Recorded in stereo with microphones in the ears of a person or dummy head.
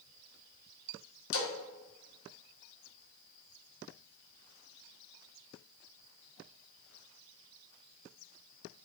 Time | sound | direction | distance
1.3 | a splash | 65° left (ahead or behind) | 0.8 m